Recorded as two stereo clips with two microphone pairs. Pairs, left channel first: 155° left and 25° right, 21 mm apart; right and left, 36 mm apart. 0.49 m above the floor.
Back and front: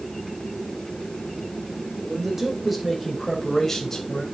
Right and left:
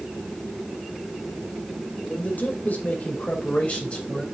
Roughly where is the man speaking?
Right.